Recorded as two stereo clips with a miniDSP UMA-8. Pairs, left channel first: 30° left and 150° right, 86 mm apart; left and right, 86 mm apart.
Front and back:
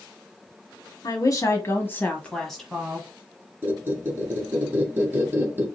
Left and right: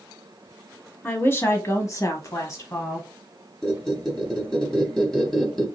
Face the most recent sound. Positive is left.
turn(degrees=175)